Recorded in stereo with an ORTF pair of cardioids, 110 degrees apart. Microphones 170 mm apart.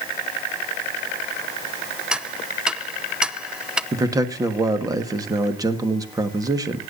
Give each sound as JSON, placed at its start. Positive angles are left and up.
{"t": 2.1, "sound": "ticking", "azimuth_deg": -5, "distance_m": 0.7}
{"t": 3.9, "sound": "a man speaking", "azimuth_deg": -20, "distance_m": 1.6}